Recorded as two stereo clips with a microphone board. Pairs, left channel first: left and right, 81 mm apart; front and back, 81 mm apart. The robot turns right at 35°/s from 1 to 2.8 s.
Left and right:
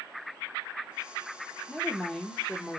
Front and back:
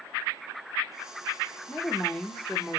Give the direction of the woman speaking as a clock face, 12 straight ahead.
11 o'clock.